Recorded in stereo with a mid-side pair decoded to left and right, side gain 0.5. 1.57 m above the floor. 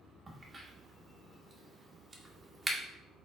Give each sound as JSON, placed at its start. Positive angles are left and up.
{"t": 0.3, "sound": "a crack", "azimuth_deg": -25, "distance_m": 1.6}